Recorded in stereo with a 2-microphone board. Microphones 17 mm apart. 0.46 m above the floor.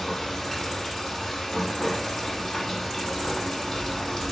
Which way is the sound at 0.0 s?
35° left (ahead or behind).